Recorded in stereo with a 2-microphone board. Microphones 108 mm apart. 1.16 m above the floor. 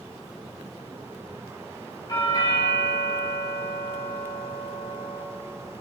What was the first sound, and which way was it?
A doorbell, 40° left (ahead or behind).